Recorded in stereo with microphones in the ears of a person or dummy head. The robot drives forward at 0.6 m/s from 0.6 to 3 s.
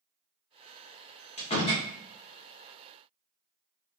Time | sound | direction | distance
1.4 | a door slam | 35° left (ahead or behind) | 1.0 m